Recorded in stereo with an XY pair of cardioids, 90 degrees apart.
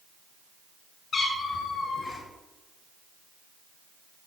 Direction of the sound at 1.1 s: 60° left.